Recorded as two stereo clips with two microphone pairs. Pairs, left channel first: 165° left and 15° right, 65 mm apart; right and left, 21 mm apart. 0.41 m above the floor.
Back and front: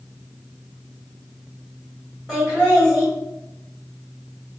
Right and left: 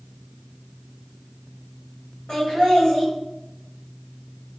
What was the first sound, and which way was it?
Laughter, 110° right.